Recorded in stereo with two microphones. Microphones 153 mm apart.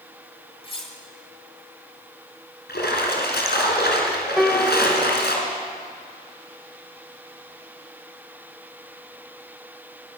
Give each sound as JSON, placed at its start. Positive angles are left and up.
{"t": 0.6, "sound": "cutlery clinking", "side_deg": 35, "distance_m": 1.6}
{"t": 2.7, "sound": "a splash", "side_deg": 85, "distance_m": 2.0}
{"t": 4.4, "sound": "a piano", "side_deg": 0, "distance_m": 0.7}